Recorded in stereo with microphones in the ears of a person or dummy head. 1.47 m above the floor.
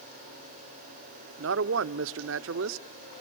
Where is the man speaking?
65° right (ahead or behind), 0.7 m.